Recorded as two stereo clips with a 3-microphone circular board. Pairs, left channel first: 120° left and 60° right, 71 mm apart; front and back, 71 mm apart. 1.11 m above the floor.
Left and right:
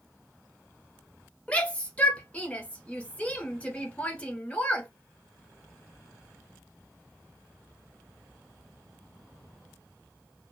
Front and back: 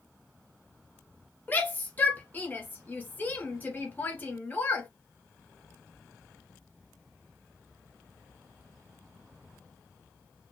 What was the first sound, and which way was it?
A shout, 55° left.